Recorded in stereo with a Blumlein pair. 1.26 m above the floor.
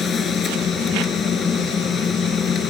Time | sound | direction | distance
0.0 | a machine running | 20° left | ?